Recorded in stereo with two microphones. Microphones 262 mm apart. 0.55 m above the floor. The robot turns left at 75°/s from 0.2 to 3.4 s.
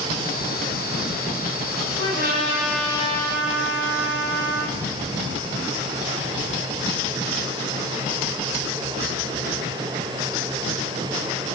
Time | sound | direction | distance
2.0 | a trumpet | 120° right | 6 m